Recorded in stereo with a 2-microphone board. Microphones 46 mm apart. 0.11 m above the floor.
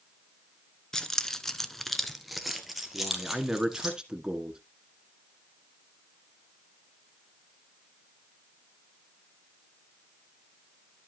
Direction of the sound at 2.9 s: 15° right (ahead or behind).